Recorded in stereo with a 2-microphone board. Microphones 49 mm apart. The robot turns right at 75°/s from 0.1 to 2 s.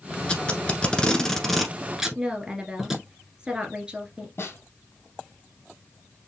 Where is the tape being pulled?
20° left (ahead or behind), 1.2 m; by 3.0 s 10° right (ahead or behind), 1.2 m.